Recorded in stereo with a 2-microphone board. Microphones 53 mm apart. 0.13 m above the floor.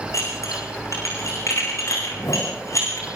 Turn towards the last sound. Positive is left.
turn(degrees=85)